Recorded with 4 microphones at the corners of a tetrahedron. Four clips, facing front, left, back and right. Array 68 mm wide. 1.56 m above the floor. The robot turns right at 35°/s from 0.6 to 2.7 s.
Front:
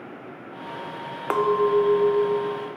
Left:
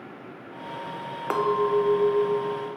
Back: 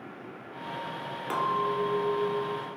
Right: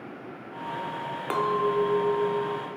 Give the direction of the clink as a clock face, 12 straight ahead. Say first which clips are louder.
Left 2 dB, front 8 dB; 11 o'clock.